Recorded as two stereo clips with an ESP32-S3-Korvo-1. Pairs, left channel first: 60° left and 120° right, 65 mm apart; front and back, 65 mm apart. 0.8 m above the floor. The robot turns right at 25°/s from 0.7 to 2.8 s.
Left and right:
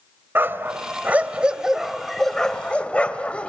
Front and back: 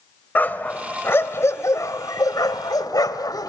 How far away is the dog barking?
About 1.6 m.